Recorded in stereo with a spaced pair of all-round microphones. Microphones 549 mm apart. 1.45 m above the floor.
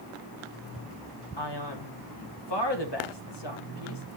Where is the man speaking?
45° left (ahead or behind), 1.3 m.